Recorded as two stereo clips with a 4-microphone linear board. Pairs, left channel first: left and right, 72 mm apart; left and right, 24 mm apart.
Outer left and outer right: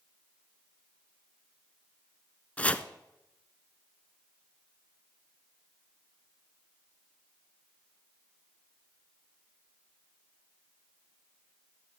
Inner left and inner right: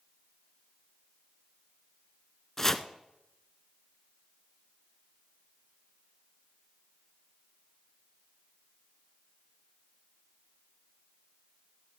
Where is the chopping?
20° left (ahead or behind), 0.7 m.